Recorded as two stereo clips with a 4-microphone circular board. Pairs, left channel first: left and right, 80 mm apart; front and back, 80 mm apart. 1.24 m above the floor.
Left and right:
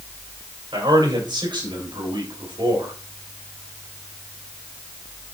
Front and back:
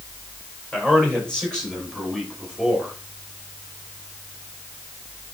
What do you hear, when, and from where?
0.7 s a man speaking: 75° right, 5 m; by 2.9 s 90° right, 5.5 m